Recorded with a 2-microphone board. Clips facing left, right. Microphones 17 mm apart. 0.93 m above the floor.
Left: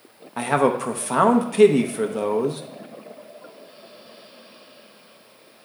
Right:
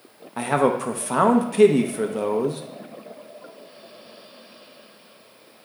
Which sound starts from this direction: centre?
A man speaking, at 0.4 s.